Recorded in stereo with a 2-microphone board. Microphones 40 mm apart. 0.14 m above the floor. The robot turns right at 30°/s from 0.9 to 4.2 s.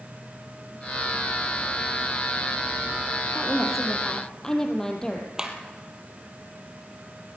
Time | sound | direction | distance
3.4 | a woman speaking | 10° right (ahead or behind) | 4 m
5.4 | a clap | 15° right (ahead or behind) | 3 m